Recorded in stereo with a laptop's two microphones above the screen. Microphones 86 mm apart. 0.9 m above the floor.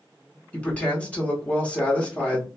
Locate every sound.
0.5 s a woman speaking: 15° left (ahead or behind), 0.9 m